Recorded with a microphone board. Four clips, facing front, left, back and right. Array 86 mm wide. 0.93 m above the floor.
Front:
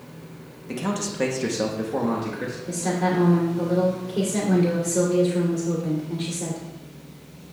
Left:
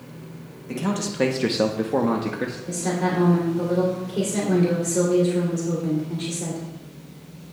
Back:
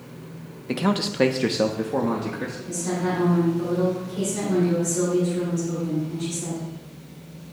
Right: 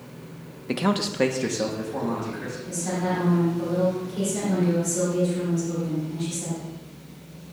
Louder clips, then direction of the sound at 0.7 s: Right 2 dB, back 4 dB; 125° right.